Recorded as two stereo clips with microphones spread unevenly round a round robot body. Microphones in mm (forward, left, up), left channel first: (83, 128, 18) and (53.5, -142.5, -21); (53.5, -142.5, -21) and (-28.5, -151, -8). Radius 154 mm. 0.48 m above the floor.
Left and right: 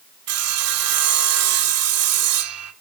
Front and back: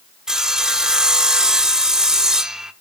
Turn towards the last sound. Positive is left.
turn(degrees=-85)